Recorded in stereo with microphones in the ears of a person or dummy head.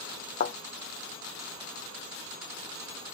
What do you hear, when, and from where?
0.4 s a thud: 40° left (ahead or behind), 0.5 m